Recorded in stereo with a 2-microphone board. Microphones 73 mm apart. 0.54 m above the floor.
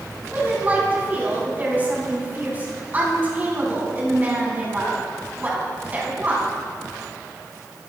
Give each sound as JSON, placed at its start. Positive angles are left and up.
{"t": 0.3, "sound": "a woman speaking", "side_deg": -25, "distance_m": 5.5}